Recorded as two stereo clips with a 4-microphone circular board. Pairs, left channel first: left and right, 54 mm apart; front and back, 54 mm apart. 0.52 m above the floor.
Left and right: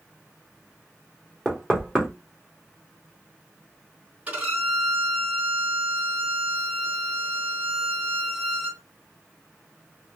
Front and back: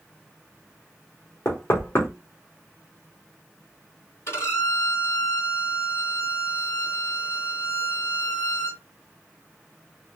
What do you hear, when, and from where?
1.4 s knocking: 10° right, 1.1 m
4.3 s a violin: 30° right, 2 m